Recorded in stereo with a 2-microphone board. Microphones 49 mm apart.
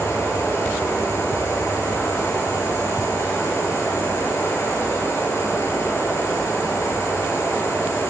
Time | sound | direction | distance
0.0 | running water | 80° left | 7 m